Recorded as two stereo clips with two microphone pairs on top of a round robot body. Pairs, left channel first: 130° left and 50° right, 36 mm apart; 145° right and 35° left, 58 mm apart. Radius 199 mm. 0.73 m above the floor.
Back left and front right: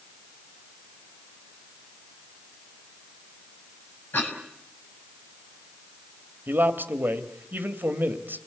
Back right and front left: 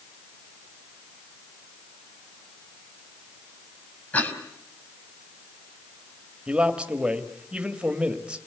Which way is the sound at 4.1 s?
155° left.